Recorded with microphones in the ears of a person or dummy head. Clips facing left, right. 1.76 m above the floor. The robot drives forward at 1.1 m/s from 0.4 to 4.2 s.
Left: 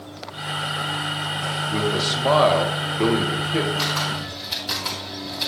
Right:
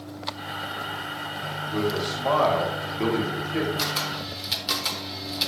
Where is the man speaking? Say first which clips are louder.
Left 1 dB; 35° left (ahead or behind), 2.0 m; by 3.7 s 50° left (ahead or behind), 1.5 m.